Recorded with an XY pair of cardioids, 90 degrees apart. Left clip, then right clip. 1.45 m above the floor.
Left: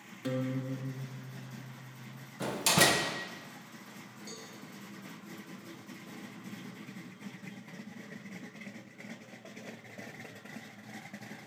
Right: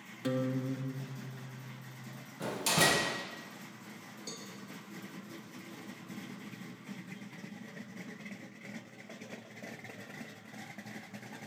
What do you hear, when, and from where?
0.2 s a guitar: 15° right, 0.6 m
2.4 s a door slam: 40° left, 0.9 m
4.3 s a cowbell: 45° right, 1.0 m